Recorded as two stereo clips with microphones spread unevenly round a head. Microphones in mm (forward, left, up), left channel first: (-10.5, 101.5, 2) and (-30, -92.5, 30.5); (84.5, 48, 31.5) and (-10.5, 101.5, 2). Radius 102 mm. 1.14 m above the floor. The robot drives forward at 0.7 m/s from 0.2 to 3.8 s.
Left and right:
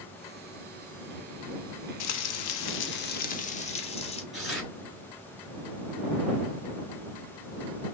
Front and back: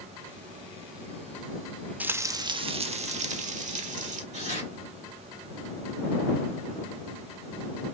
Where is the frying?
70° left, 0.8 m; by 4.2 s 145° left, 1.2 m.